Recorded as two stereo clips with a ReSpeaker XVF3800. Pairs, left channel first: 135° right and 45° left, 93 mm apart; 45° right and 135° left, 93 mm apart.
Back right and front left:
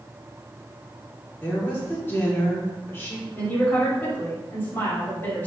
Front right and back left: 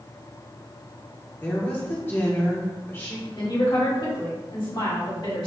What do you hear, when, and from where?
1.4 s a woman speaking: 90° right, 1.1 m
3.4 s a woman speaking: 70° right, 1.9 m